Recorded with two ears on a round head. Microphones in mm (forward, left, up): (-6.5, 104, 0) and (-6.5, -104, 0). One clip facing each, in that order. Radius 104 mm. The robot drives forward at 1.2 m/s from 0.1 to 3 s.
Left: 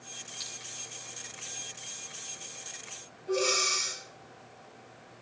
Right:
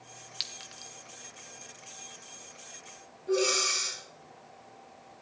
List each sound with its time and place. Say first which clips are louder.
0.4 s a clink: left 1 dB; 80° right, 1.4 m; by 0.9 s 60° right (ahead or behind), 1.6 m
3.3 s breathing: right 2 dB; 15° right (ahead or behind), 8 m